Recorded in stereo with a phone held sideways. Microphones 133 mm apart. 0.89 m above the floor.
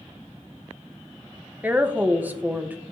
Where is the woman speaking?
10° right (ahead or behind), 0.7 m.